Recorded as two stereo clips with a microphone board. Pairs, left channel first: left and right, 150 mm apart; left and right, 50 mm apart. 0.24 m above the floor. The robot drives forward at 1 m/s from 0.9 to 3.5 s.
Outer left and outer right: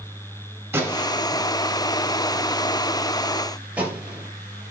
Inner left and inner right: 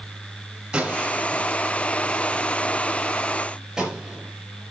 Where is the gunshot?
20° right (ahead or behind), 3 m; by 4.3 s 10° right (ahead or behind), 5.5 m.